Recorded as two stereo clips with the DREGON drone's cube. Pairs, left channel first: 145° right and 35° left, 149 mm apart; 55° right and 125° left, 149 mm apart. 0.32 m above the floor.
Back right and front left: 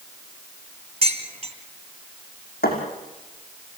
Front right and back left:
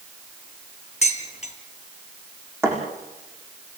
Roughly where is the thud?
Behind.